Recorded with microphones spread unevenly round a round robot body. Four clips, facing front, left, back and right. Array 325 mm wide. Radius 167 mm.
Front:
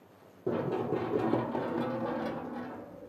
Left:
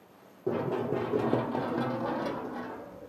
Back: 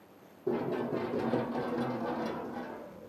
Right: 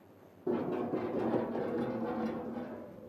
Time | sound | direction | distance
0.5 | running footsteps | 25° left | 0.9 m